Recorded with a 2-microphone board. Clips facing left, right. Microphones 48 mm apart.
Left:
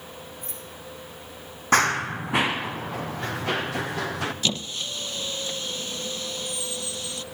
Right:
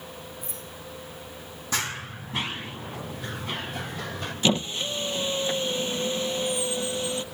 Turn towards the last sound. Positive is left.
turn(degrees=-25)  # may be behind; listen again after turning